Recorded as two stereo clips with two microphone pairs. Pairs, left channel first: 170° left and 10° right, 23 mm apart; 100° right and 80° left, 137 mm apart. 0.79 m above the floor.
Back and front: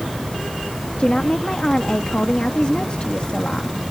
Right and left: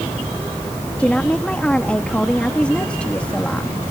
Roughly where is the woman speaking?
Behind.